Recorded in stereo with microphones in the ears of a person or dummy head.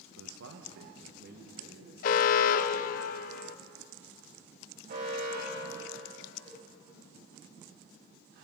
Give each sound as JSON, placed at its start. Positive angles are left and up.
{"t": 0.2, "sound": "a man speaking", "side_deg": -75, "distance_m": 0.8}
{"t": 2.0, "sound": "an alarm", "side_deg": 50, "distance_m": 0.6}
{"t": 4.9, "sound": "an alarm", "side_deg": -55, "distance_m": 3.5}
{"t": 6.5, "sound": "a cowbell", "side_deg": 10, "distance_m": 7.0}